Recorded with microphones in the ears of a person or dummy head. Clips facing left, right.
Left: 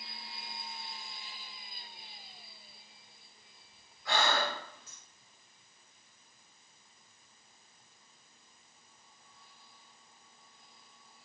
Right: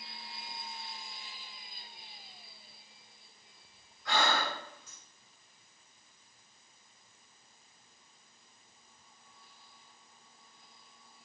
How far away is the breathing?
About 2 m.